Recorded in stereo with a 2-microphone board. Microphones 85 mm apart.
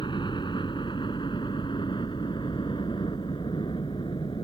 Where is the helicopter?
65° left (ahead or behind).